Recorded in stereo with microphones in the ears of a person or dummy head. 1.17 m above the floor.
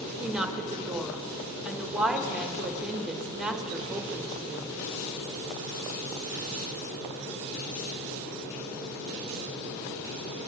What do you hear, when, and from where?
0.2 s a woman speaking: centre (ahead or behind), 1.0 m